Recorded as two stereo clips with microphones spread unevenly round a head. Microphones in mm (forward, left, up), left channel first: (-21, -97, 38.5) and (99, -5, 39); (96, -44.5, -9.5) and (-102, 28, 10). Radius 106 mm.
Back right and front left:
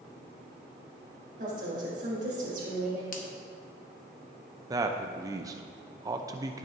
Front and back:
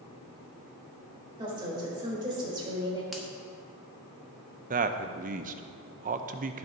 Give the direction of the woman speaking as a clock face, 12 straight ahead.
9 o'clock.